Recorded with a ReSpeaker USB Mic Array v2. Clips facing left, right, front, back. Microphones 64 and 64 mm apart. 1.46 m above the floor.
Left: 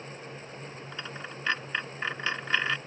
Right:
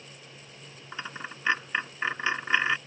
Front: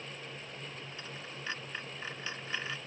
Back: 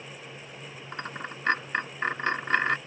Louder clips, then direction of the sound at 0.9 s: Right 4 dB, back 8 dB; 160° right.